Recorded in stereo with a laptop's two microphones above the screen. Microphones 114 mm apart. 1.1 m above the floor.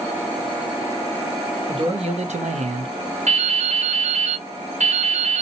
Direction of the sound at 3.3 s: 80° right.